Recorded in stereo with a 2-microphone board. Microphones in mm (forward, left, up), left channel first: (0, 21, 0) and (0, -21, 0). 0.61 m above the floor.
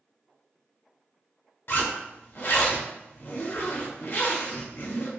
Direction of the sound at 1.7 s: 55° left (ahead or behind).